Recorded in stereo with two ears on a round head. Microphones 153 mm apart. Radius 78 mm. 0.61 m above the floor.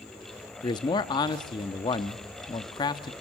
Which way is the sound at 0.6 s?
25° left (ahead or behind).